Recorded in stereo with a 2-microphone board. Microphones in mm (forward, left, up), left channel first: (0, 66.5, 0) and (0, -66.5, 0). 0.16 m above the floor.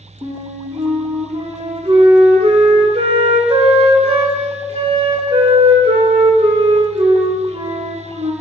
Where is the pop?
I don't hear a pop.